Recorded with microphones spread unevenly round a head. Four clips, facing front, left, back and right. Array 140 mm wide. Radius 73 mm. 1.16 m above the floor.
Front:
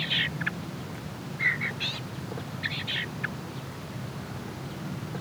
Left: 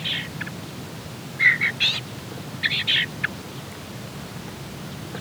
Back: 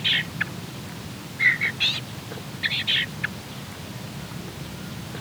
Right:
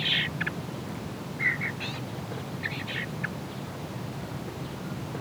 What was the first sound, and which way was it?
Only background noise.